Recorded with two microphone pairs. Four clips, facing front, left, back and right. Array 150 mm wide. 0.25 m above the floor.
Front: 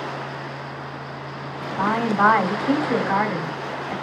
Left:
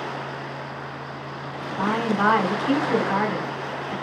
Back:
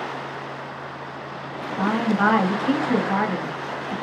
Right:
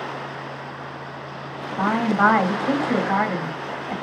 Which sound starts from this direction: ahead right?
A woman speaking, at 1.8 s.